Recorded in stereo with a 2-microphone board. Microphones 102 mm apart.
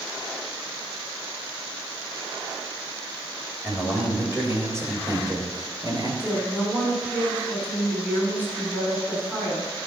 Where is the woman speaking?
15° right (ahead or behind), 4.5 m.